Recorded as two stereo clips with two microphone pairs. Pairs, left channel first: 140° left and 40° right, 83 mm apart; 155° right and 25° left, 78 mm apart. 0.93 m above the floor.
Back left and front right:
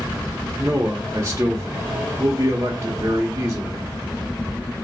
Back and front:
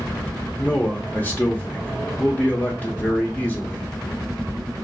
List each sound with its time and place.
0.6 s a man speaking: 85° right, 0.7 m